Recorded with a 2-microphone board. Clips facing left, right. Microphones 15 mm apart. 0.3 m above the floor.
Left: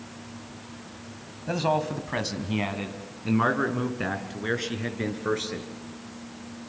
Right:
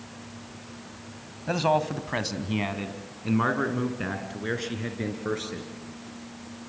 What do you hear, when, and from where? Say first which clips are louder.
1.5 s a man speaking: right 1 dB; 15° right (ahead or behind), 1.4 m; by 5.7 s 10° left (ahead or behind), 4 m